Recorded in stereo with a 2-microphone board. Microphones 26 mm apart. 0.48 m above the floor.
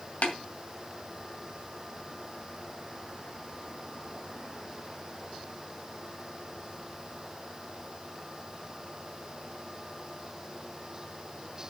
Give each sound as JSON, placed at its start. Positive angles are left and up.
{"t": 0.2, "sound": "tapping", "side_deg": 70, "distance_m": 2.5}